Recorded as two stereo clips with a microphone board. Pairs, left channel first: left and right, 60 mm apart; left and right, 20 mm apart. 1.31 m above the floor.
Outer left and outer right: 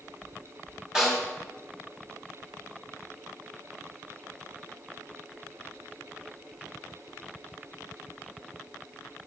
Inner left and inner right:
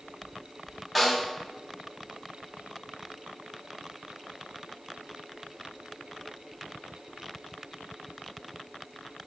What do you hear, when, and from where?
0.9 s a snare drum: 10° right (ahead or behind), 1.8 m